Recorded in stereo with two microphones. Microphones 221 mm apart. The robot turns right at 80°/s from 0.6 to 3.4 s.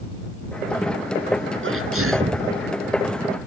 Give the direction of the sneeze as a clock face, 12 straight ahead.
4 o'clock.